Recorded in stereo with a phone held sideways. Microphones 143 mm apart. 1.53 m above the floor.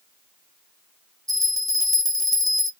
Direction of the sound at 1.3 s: 25° right (ahead or behind).